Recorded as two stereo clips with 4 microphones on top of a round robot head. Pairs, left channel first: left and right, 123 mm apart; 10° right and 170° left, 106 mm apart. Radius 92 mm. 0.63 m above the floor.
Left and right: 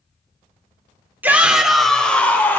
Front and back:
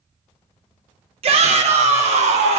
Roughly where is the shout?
Behind.